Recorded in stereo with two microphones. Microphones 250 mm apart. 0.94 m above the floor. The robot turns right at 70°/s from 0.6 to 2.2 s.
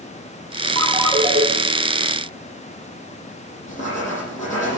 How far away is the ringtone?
About 6 m.